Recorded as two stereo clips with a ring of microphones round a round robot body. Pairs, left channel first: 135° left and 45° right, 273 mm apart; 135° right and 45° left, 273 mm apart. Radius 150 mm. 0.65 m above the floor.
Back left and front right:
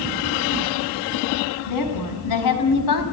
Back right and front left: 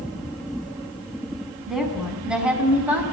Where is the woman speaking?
135° left, 6 m; by 3.0 s 130° left, 5 m.